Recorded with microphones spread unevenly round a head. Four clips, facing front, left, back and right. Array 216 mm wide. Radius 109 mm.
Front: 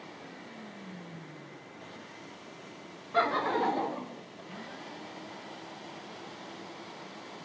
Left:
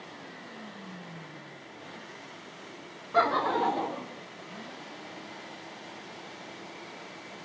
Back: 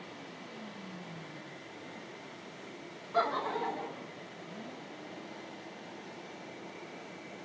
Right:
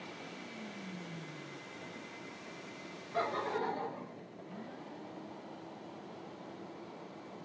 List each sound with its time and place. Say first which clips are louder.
3.1 s laughter: left 10 dB, front 3 dB; 60° left, 0.6 m; by 4.2 s 30° left, 1.3 m